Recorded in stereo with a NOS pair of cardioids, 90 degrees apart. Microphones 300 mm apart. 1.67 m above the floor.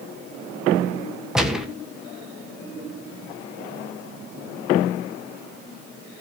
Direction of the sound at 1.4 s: Straight ahead.